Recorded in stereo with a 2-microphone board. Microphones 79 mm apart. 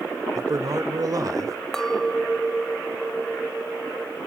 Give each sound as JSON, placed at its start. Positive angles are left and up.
{"t": 0.3, "sound": "a man speaking", "side_deg": -45, "distance_m": 1.6}
{"t": 1.7, "sound": "a clink", "side_deg": 5, "distance_m": 1.9}